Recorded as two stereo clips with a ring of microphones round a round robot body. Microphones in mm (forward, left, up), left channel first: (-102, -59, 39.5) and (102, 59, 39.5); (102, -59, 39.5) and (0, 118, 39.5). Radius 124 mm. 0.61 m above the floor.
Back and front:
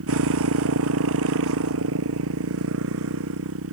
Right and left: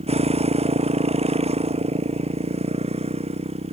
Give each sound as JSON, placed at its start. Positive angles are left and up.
{"t": 0.0, "sound": "a motorcycle", "azimuth_deg": 60}